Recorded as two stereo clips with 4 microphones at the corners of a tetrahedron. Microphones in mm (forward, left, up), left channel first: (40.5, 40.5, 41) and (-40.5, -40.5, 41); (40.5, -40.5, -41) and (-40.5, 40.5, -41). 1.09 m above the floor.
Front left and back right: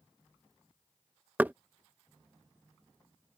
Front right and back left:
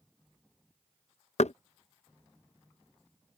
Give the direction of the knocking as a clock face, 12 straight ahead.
2 o'clock.